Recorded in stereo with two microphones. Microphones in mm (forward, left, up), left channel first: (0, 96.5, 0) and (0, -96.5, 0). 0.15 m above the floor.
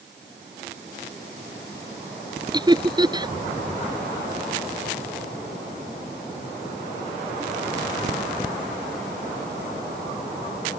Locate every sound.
2.5 s laughter: 20° right (ahead or behind)